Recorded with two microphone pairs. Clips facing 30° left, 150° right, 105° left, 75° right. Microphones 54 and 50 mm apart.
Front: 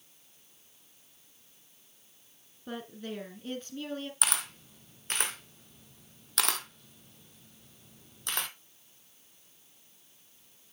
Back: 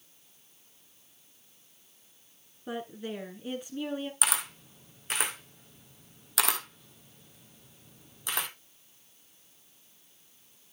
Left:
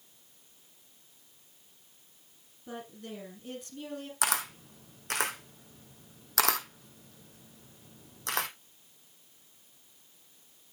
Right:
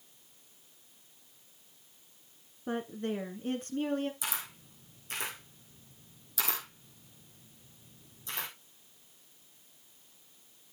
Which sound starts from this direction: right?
A woman speaking, at 2.7 s.